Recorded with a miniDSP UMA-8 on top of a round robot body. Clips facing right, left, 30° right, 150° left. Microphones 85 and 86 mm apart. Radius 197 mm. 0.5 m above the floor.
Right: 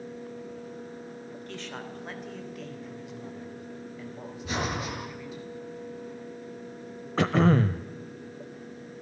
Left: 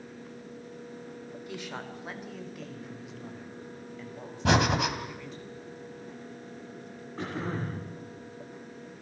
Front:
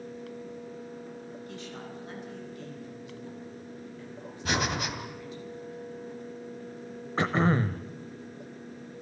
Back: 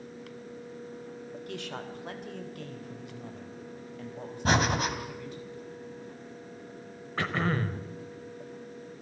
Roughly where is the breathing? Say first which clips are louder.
Left 7 dB, back 4 dB; left.